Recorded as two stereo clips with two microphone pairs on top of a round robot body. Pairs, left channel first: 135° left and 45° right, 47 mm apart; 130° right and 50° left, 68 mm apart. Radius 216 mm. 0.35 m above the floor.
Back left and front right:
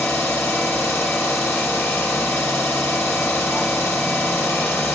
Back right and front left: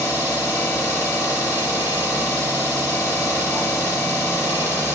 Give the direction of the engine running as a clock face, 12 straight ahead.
7 o'clock.